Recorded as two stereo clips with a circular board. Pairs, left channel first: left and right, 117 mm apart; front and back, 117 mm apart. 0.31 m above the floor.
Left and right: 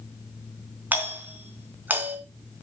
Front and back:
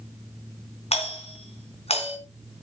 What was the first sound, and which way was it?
A doorbell, 15° right.